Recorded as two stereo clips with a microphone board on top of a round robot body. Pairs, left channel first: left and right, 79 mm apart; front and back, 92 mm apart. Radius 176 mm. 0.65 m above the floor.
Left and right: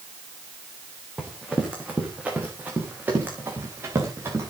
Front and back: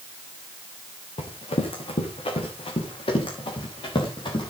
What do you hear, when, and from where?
1.2 s running footsteps: 5° right, 4 m; by 4.5 s 35° right, 6 m